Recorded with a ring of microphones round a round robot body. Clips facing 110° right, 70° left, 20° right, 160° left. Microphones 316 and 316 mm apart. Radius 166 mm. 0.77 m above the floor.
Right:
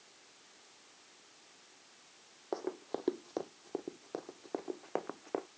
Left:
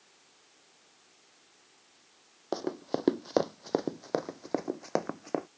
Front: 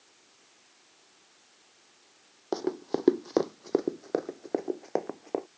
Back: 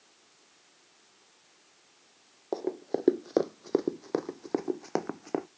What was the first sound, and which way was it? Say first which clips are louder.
Running footsteps: left 6 dB, front 1 dB; 35° left.